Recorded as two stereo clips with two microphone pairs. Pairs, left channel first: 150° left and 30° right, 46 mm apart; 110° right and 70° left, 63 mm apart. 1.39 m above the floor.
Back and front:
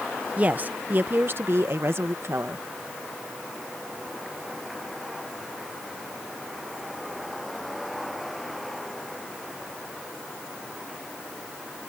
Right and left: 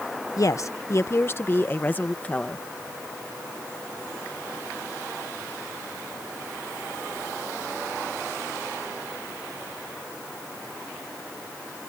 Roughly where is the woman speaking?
Right.